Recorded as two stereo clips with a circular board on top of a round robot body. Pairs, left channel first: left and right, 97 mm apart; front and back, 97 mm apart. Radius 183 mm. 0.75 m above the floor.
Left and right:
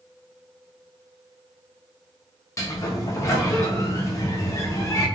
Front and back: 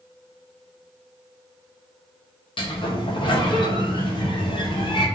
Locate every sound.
2.6 s a sliding door: 30° left, 0.6 m